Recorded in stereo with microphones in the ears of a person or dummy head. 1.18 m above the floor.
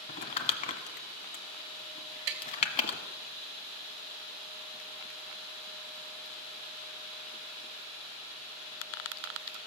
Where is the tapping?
50° right (ahead or behind), 1.2 m.